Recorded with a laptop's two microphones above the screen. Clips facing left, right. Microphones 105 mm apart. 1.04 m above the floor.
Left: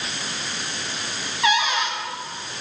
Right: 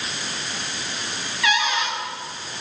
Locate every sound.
1.4 s a cupboard door: 25° left (ahead or behind), 4.5 m